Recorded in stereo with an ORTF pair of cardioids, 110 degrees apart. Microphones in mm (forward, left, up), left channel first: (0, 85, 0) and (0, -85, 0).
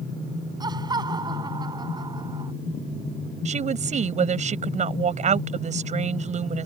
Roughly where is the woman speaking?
Ahead right.